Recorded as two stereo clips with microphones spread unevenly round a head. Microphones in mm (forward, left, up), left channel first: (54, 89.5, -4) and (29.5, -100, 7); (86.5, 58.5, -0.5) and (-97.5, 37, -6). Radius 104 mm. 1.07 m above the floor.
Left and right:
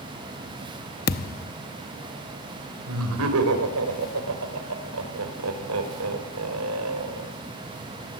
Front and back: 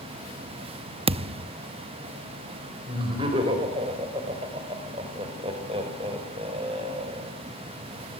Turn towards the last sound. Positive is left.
turn(degrees=-105)